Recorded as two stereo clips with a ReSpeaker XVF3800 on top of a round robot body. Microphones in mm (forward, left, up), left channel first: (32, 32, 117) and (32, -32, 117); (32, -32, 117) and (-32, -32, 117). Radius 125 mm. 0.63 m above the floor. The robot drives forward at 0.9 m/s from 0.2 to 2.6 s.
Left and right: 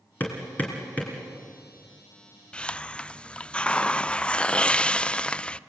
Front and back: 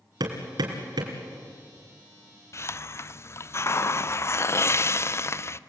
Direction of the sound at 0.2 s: 155° left.